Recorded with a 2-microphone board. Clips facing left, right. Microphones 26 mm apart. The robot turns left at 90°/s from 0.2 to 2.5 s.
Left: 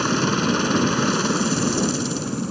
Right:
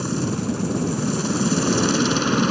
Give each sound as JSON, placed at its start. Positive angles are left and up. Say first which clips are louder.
{"t": 0.0, "sound": "a helicopter", "louder": "left 4 dB", "azimuth_deg": 130}